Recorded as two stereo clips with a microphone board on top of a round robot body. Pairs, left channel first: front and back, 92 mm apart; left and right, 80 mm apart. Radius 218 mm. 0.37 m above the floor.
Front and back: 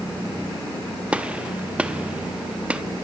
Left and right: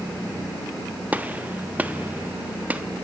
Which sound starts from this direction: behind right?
A gunshot, at 1.1 s.